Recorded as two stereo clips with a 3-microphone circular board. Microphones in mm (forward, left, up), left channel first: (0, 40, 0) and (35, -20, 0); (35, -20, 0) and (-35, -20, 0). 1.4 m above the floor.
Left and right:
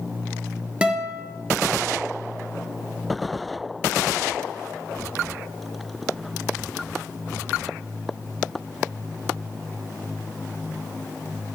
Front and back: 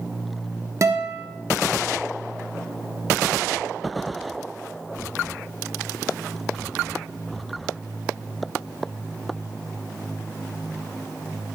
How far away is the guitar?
About 0.6 m.